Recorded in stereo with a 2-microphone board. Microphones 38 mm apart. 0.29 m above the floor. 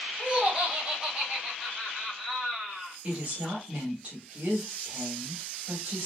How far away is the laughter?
About 1.3 m.